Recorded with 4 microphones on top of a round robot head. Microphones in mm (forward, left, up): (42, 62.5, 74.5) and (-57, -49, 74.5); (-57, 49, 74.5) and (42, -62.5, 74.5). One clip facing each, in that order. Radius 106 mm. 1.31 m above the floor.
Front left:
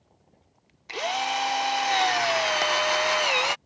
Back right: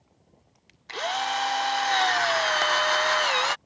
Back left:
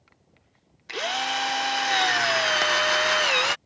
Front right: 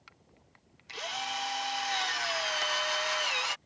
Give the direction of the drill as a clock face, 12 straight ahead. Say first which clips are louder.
Front left 1 dB, back left 9 dB; 8 o'clock.